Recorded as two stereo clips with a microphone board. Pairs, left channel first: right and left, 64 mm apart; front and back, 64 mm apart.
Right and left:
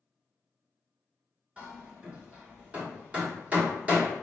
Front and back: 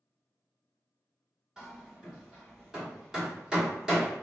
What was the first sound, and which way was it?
Hammering, 115° left.